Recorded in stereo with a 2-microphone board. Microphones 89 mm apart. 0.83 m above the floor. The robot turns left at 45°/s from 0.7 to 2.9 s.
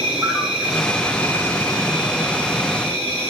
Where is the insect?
170° right, 7.5 m; by 3.3 s 90° left, 7.5 m.